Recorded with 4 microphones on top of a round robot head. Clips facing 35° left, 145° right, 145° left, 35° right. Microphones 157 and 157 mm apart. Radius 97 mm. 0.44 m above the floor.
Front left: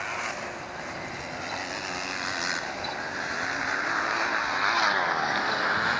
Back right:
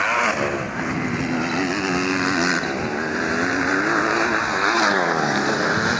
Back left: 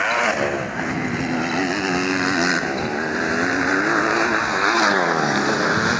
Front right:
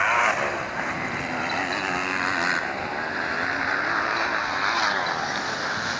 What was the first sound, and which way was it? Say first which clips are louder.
A motorcycle: back right 13 dB, back left 4 dB; 165° right.